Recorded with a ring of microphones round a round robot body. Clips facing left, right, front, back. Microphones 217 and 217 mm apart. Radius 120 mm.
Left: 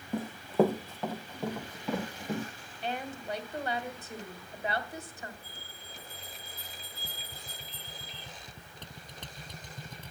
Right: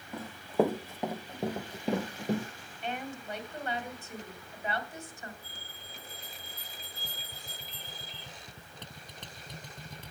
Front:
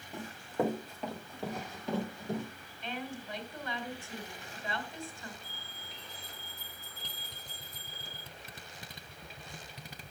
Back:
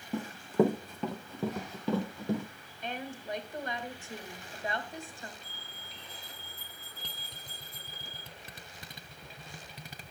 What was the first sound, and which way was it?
Running footsteps, 165° left.